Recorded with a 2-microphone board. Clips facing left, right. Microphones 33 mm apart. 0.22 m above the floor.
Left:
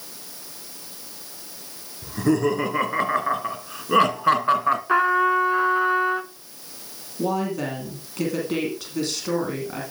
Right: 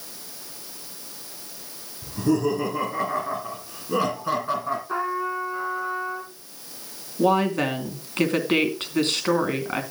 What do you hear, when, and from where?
2.0 s laughter: 50° left (ahead or behind), 3.5 m; by 4.8 s 55° left (ahead or behind), 2.5 m
4.9 s a trumpet: 70° left (ahead or behind), 1.0 m
7.2 s a woman speaking: 45° right (ahead or behind), 2.5 m